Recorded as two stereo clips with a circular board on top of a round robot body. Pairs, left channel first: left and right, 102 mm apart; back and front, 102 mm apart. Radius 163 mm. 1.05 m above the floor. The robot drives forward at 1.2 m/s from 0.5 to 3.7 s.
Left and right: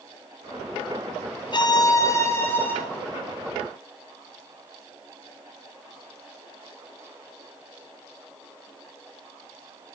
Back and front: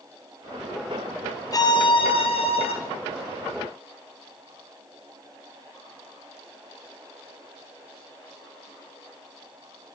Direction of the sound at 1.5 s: 130° left.